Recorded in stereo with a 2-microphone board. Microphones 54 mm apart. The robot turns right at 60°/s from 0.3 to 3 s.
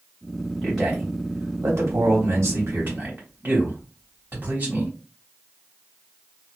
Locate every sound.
0.6 s a man speaking: 5° left (ahead or behind), 1.5 m; by 4.9 s 40° right (ahead or behind), 1.5 m